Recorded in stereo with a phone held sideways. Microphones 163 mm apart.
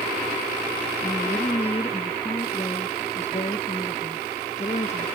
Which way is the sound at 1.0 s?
30° left (ahead or behind).